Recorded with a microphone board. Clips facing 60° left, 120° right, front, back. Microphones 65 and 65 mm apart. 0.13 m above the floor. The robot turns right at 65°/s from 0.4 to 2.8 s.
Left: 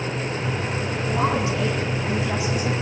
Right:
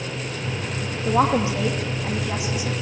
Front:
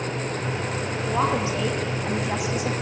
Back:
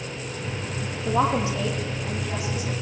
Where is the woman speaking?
90° right, 8.5 m; by 2.7 s 20° left, 8.5 m.